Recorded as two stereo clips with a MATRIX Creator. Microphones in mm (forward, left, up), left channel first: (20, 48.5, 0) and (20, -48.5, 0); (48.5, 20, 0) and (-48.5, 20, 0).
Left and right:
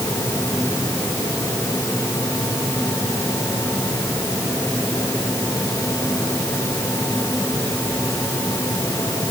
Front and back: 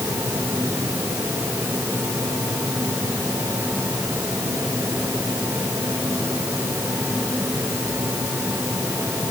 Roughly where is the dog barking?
I don't hear a dog barking.